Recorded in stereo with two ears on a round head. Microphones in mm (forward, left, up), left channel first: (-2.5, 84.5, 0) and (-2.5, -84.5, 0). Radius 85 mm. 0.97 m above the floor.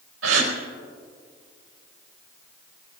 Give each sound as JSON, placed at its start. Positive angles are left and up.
{"t": 0.2, "sound": "a gasp", "side_deg": -85, "distance_m": 4.0}